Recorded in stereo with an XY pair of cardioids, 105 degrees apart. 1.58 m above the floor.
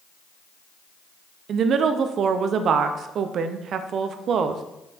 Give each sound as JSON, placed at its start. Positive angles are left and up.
{"t": 1.5, "sound": "a woman speaking", "azimuth_deg": -60, "distance_m": 0.8}